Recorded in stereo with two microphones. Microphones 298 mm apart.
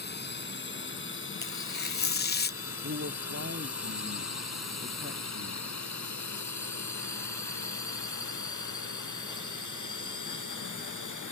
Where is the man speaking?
50° right (ahead or behind).